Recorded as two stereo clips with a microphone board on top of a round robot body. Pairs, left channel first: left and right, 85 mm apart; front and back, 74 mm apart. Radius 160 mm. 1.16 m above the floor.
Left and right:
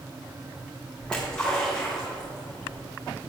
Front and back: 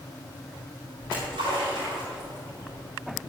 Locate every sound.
1.0 s a splash: 170° left, 4 m